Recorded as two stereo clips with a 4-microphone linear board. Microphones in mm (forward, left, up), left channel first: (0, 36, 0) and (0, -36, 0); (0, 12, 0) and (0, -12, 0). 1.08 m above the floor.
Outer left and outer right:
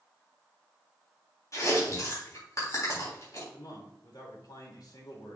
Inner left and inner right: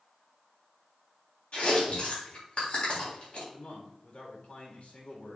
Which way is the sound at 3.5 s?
70° left (ahead or behind).